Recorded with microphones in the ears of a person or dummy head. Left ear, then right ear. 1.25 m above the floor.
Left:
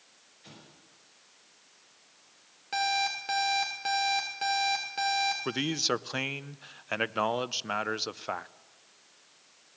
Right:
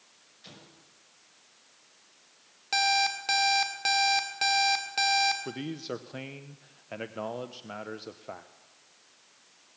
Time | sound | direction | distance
0.4 | an explosion | 30° right (ahead or behind) | 5.5 m
2.7 | an alarm clock | 30° right (ahead or behind) | 1.9 m
5.5 | a man speaking | 45° left (ahead or behind) | 0.6 m